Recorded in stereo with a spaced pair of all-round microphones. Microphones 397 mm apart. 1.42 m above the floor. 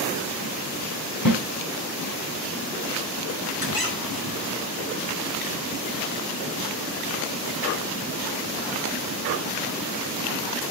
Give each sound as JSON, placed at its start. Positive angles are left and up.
{"t": 1.2, "sound": "a snare drum", "side_deg": 50, "distance_m": 2.5}
{"t": 3.6, "sound": "a squeak", "side_deg": 60, "distance_m": 2.0}